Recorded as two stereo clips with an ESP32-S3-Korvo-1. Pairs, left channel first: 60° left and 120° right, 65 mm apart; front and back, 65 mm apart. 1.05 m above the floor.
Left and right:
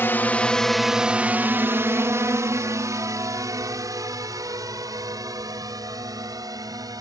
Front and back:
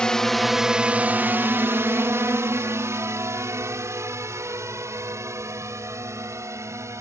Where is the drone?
65° left; by 7.0 s 140° right.